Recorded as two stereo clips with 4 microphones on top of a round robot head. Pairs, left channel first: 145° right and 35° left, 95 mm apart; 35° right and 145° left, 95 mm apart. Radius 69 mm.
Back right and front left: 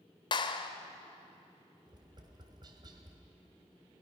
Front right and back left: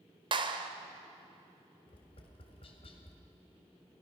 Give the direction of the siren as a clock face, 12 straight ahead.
I don't hear a siren.